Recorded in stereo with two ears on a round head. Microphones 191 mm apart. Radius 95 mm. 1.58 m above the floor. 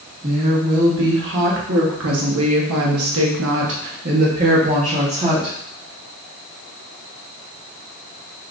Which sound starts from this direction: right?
A woman speaking, at 0.2 s.